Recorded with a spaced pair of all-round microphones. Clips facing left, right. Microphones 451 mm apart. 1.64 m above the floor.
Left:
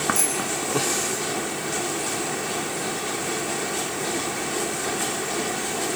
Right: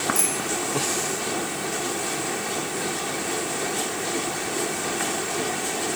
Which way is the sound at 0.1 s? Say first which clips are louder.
Even; 25° right (ahead or behind).